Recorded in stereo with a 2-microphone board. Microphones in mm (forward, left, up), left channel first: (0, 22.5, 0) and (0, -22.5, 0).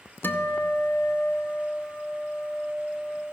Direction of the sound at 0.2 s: 50° left (ahead or behind).